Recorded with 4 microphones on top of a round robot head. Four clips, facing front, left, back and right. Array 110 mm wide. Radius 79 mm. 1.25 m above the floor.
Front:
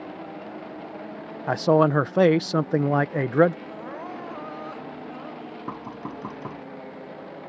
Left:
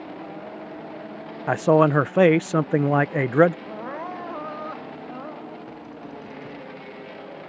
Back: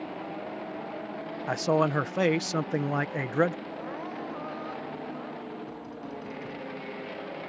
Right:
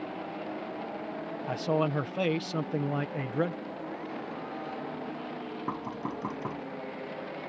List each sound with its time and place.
1.5 s a man speaking: 60° left
3.6 s crying: 75° left
5.7 s knocking: 45° right